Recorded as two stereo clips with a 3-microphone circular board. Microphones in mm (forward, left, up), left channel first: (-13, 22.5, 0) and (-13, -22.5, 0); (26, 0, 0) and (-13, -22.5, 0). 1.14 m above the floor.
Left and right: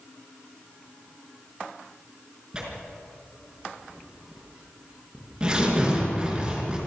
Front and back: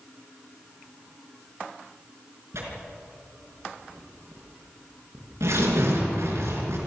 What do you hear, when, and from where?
2.5 s tearing paper: 165° right, 5 m